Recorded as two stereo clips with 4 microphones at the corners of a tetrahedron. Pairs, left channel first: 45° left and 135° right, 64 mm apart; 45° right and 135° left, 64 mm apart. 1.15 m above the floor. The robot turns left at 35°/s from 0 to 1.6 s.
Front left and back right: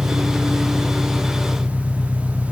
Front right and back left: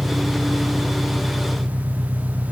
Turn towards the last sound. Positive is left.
turn(degrees=120)